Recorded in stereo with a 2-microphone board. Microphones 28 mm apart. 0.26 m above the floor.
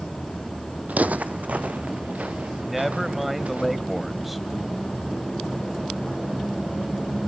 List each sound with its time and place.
0.9 s footsteps: 70° right (ahead or behind), 0.6 m; by 3.6 s 60° right (ahead or behind), 3.5 m
2.6 s a man speaking: 5° right (ahead or behind), 1.3 m